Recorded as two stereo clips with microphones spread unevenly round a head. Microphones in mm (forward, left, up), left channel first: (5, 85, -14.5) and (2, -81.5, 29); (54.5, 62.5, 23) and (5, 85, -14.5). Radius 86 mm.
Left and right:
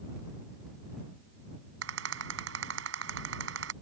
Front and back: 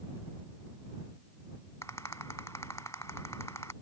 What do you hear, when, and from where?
1.8 s a rattle: 90° right